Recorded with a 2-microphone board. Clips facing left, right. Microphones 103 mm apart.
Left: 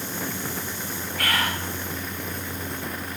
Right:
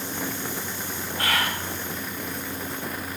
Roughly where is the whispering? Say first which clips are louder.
Even; right.